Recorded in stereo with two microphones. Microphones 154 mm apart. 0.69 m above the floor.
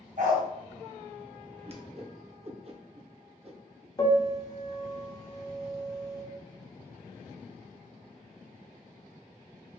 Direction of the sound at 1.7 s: 45° right (ahead or behind).